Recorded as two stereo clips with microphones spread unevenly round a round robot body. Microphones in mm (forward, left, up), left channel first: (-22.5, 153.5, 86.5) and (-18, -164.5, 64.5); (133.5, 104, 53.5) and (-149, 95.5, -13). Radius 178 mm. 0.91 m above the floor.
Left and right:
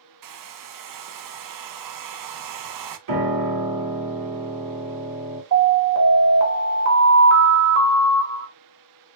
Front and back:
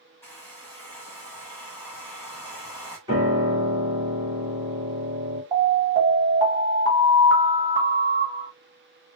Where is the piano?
100° right, 1.9 m.